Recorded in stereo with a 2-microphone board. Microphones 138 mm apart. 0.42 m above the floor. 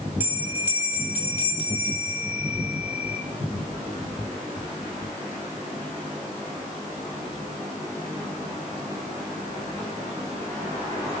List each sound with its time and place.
0.2 s a bell: 15° right (ahead or behind), 2.5 m